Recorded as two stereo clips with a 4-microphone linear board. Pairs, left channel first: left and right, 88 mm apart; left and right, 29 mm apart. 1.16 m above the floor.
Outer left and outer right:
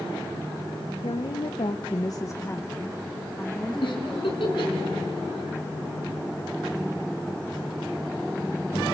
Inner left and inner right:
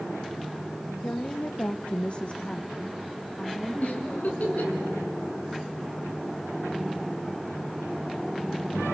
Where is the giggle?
75° left (ahead or behind), 3.5 m.